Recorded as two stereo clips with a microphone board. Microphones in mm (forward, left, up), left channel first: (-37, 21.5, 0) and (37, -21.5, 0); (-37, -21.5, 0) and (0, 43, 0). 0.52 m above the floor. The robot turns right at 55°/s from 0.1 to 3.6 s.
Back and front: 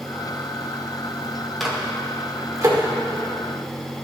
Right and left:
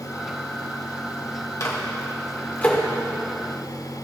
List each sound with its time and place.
1.6 s a microwave: 120° right, 1.4 m; by 2.8 s 55° right, 1.4 m